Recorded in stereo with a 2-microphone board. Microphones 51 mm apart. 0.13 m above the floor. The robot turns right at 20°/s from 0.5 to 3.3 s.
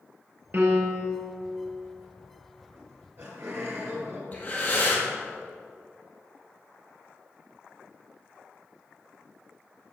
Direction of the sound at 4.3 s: 35° left (ahead or behind).